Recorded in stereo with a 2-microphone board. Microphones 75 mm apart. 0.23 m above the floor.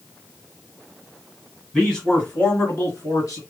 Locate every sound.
1.7 s a man speaking: 10° left (ahead or behind), 1.8 m; by 3.4 s 45° left (ahead or behind), 2 m